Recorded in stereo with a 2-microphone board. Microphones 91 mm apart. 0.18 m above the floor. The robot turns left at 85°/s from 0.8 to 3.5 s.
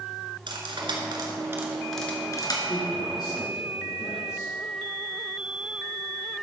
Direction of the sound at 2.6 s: 120° left.